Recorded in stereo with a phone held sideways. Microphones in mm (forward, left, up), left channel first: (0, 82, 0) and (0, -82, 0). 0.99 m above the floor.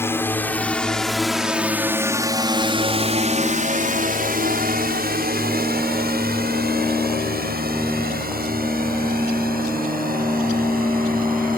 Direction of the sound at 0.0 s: 15° left (ahead or behind).